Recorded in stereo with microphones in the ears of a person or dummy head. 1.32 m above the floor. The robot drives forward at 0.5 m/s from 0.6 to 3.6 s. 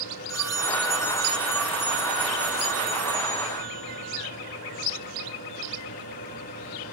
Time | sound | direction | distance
0.3 | a phone ringing | 15° left (ahead or behind) | 0.7 m